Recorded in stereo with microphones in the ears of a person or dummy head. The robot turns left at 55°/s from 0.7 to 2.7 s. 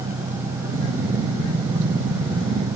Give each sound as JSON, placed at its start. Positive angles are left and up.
{"t": 0.0, "sound": "an engine running", "azimuth_deg": -45}